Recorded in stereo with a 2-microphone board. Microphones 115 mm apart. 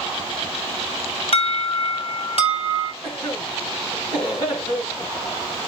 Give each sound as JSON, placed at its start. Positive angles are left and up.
{"t": 1.3, "sound": "an alarm", "side_deg": 55, "distance_m": 2.5}
{"t": 3.0, "sound": "a cough", "side_deg": 35, "distance_m": 8.5}